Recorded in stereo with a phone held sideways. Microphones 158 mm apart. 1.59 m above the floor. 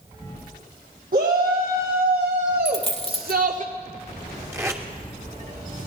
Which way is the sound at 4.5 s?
15° right (ahead or behind).